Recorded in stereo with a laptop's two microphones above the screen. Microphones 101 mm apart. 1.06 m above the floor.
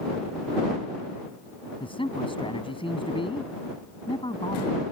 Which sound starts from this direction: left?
A man speaking, at 1.8 s.